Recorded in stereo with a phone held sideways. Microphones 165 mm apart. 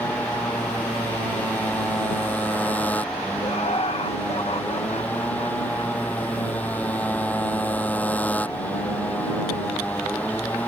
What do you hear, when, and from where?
0.0 s a motorcycle: 10° left (ahead or behind)
3.4 s laughter: 40° left (ahead or behind)